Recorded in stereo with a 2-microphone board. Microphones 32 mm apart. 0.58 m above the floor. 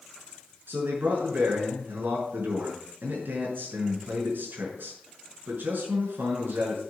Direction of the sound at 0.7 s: 80° right.